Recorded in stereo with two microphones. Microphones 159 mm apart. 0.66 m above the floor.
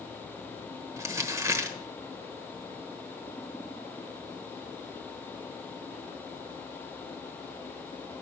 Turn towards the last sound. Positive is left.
turn(degrees=-20)  # may be behind; listen again after turning